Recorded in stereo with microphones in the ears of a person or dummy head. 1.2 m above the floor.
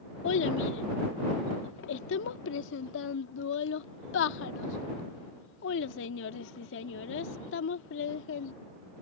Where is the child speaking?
75° left (ahead or behind).